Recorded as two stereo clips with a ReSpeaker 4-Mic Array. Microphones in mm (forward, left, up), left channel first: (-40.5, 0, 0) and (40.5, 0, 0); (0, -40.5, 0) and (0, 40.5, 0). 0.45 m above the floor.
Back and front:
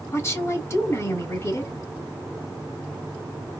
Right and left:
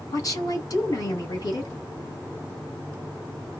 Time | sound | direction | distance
0.1 | a woman speaking | 125° right | 2 m